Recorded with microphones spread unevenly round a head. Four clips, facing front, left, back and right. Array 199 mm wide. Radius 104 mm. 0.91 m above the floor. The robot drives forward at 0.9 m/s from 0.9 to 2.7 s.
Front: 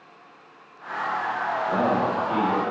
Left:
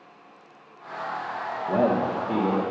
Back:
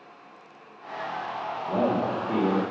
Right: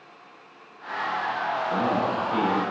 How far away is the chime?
No chime in this recording.